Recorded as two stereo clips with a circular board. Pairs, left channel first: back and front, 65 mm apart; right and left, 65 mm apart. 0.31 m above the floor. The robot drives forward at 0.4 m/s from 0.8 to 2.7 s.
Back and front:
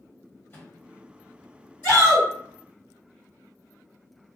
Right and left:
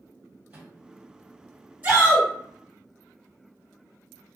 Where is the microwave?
135° left, 1.3 m.